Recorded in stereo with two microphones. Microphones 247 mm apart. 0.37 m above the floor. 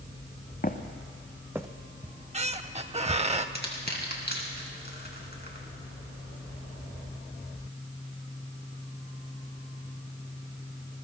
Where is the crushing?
40° left (ahead or behind), 2.5 m.